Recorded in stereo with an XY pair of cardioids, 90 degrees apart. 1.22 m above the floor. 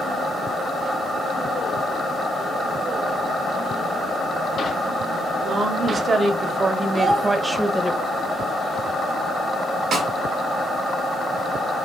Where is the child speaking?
40° right, 1.6 m.